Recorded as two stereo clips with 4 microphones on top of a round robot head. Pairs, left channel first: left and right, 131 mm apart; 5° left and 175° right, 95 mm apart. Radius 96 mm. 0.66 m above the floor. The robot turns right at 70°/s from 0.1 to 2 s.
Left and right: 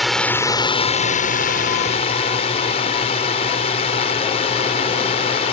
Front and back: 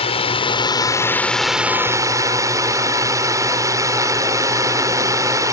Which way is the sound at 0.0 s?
Straight ahead.